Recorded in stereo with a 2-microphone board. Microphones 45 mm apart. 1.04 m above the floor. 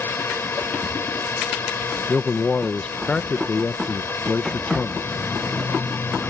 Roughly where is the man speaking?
Left.